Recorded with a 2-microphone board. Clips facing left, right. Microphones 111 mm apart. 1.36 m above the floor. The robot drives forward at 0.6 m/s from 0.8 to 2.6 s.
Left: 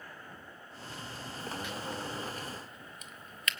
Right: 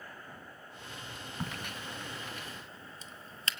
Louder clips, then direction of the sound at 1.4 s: Left 2 dB; 60° right (ahead or behind).